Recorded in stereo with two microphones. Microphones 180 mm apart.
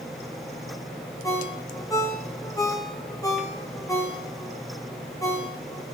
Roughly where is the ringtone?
Centre.